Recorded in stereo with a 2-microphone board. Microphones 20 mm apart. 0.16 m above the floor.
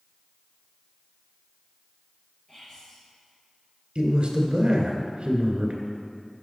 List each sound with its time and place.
2.5 s whispering: 40° left (ahead or behind), 3 m
4.0 s a man speaking: 45° right (ahead or behind), 1.7 m